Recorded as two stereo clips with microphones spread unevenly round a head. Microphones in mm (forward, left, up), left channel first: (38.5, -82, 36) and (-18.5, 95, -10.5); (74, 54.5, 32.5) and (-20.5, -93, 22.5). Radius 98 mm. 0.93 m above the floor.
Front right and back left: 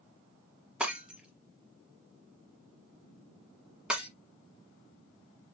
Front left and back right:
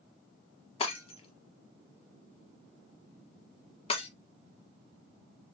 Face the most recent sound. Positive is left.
turn(degrees=10)